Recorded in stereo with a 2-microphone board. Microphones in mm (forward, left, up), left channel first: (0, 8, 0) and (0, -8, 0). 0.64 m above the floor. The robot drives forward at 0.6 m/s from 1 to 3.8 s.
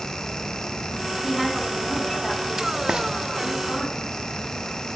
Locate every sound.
1.2 s a woman speaking: 20° right (ahead or behind), 1.1 m; by 3.9 s 10° right (ahead or behind), 2.5 m
2.9 s frying: 55° right (ahead or behind), 0.5 m; by 3.0 s 50° right (ahead or behind), 0.5 m